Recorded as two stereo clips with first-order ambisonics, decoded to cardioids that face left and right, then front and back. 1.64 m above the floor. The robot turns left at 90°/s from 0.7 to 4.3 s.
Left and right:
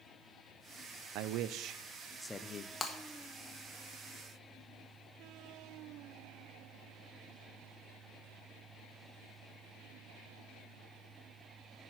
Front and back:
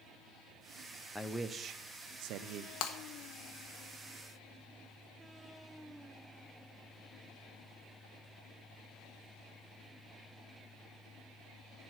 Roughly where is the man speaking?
Right.